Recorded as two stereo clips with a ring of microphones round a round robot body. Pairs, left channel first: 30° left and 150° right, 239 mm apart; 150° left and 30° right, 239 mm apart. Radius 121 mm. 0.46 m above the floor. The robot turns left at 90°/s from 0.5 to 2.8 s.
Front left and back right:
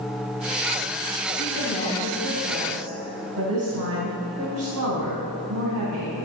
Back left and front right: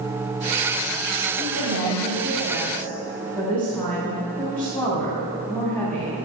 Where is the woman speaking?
Straight ahead, 3.5 m; by 6.1 s 125° right, 3.5 m.